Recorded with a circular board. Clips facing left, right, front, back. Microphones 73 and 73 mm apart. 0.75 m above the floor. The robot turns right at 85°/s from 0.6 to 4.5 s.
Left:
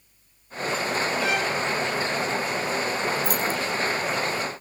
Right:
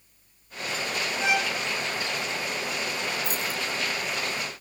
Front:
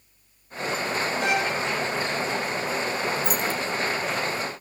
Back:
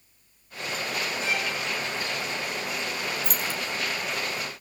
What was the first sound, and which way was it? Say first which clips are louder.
A violin: left 1 dB, front 6 dB; 25° right.